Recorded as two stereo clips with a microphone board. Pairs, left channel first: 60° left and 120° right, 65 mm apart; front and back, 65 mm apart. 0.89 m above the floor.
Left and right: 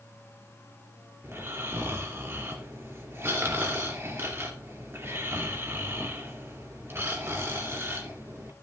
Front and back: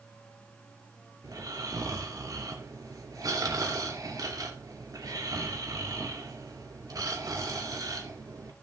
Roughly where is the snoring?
Behind.